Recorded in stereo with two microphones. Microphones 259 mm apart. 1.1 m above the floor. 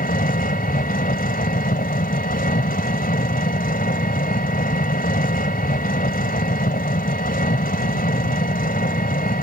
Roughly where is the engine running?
Left.